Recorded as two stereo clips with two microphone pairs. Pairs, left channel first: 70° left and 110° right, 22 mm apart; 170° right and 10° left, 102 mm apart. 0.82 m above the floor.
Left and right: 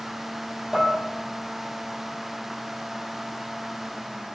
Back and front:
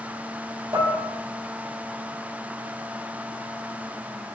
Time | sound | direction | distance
0.7 | dishes clattering | 50° right | 2 m